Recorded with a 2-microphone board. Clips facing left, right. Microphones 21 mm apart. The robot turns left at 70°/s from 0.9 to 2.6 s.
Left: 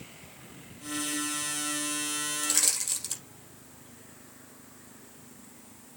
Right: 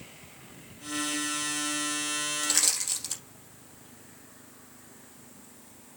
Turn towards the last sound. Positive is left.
turn(degrees=-5)  # may be behind; listen again after turning